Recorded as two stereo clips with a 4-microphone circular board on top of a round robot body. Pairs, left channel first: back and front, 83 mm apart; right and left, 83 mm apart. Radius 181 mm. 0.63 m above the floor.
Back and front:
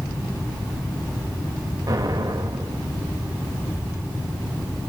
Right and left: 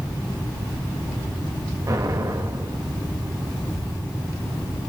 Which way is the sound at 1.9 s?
45° left.